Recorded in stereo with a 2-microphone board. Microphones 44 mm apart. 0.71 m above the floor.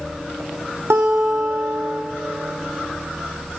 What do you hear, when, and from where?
0.9 s a guitar: 70° right (ahead or behind), 1.9 m